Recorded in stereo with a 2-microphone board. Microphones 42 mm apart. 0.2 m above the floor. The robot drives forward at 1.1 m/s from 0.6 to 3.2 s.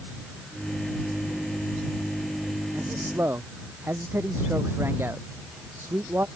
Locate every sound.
2.7 s a man speaking: 75° right (ahead or behind)